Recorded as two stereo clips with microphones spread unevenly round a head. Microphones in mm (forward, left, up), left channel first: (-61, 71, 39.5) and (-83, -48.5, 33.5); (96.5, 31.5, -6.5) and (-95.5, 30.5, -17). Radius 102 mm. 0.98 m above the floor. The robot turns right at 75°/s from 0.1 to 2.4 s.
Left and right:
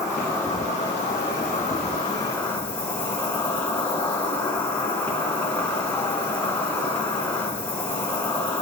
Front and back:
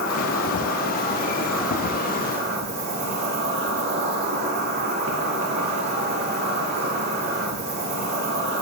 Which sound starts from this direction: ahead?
An insect, at 0.0 s.